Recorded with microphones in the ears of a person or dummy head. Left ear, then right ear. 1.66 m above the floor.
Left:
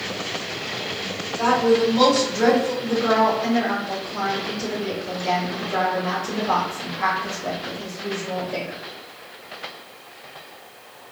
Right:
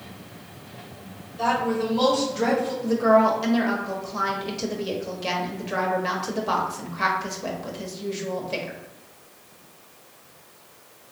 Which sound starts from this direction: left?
A woman speaking, at 1.4 s.